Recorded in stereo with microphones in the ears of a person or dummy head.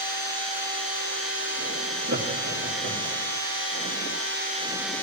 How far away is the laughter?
About 3.5 m.